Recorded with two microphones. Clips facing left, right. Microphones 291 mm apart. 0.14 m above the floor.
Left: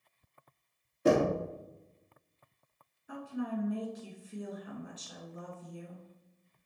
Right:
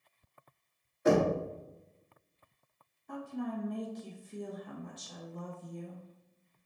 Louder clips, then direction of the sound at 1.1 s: Even; 40° left (ahead or behind).